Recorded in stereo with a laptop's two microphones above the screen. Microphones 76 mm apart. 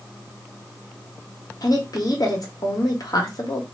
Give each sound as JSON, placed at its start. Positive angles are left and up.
{"t": 1.6, "sound": "a woman speaking", "side_deg": 60, "distance_m": 1.1}